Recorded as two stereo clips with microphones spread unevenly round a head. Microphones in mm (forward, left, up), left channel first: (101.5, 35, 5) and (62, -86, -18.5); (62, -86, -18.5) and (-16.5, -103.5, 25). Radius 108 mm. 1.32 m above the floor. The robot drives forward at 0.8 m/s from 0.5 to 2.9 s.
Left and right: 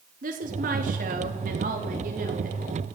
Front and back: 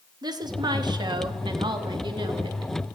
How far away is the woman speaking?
About 2.5 m.